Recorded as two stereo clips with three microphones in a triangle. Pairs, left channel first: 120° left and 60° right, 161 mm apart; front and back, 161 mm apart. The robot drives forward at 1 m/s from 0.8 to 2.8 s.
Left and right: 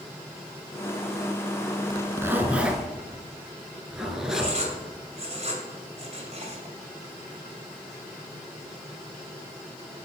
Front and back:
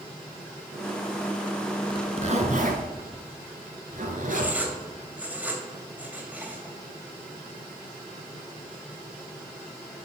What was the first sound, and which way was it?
A zipper, 125° right.